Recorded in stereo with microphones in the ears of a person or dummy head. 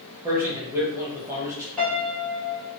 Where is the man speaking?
15° right (ahead or behind), 0.9 m.